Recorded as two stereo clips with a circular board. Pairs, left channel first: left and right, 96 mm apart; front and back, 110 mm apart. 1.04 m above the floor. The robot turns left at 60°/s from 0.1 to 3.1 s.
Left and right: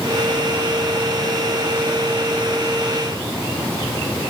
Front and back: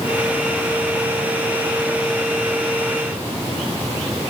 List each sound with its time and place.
Only background noise.